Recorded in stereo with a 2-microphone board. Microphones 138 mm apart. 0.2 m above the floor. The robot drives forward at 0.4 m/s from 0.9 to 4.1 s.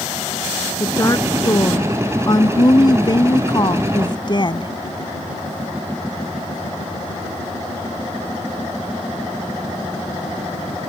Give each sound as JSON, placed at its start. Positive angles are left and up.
{"t": 0.8, "sound": "a woman speaking", "side_deg": 25}